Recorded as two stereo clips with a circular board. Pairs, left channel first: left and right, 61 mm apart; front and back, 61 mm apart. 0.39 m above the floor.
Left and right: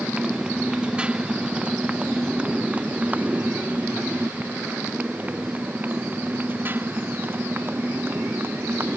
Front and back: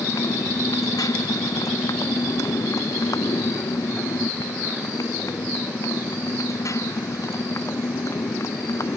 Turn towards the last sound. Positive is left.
turn(degrees=-40)